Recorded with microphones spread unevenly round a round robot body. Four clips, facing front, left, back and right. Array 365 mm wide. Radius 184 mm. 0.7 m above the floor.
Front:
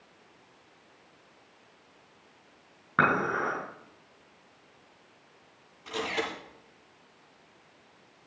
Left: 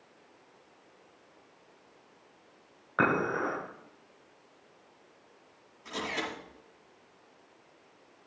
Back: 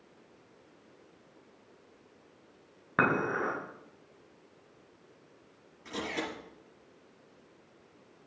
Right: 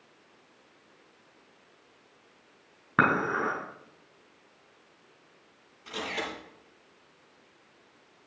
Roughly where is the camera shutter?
Behind.